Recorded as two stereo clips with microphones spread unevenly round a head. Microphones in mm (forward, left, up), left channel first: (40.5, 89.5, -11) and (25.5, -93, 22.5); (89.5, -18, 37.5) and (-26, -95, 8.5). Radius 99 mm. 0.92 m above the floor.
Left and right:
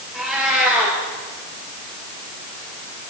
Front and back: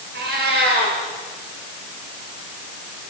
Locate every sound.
0.1 s a cat meowing: straight behind, 5 m